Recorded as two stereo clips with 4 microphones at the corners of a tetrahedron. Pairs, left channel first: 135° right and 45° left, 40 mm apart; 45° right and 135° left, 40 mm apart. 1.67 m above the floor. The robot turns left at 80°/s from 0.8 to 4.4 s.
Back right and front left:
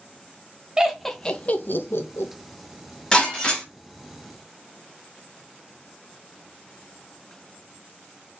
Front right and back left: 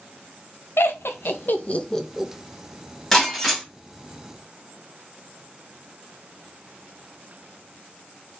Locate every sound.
0.8 s laughter: 30° right, 0.5 m; by 2.3 s 150° right, 0.5 m
3.1 s breaking glass: 110° right, 1.6 m; by 3.6 s 155° right, 1.6 m